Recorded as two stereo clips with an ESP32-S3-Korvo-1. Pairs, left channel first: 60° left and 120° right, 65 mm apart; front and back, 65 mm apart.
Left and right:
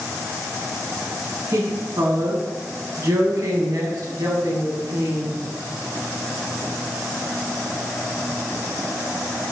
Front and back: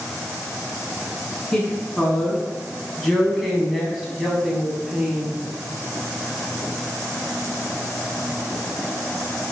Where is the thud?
No thud in this recording.